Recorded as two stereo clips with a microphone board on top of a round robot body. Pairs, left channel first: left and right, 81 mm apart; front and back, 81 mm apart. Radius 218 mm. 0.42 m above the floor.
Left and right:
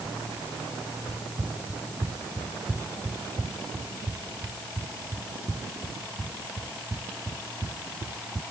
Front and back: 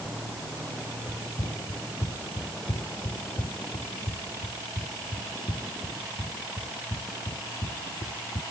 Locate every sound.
1.1 s running footsteps: 15° right